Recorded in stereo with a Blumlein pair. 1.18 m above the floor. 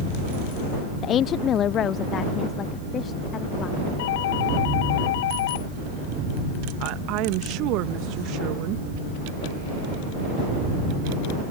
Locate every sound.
1.0 s a woman speaking: 30° left; by 3.8 s 25° left
4.0 s a doorbell: 55° left
6.8 s a woman speaking: 40° right